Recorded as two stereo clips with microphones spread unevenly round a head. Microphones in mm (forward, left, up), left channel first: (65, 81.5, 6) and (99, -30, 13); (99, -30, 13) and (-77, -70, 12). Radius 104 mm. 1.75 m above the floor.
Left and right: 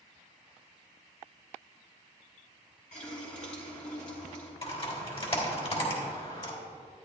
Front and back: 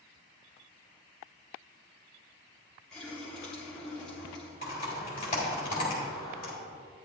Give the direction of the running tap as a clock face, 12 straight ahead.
9 o'clock.